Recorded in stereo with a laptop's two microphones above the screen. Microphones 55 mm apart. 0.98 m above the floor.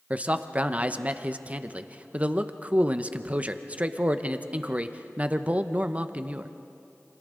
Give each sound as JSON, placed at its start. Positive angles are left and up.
{"t": 0.1, "sound": "a man speaking", "side_deg": -25, "distance_m": 0.8}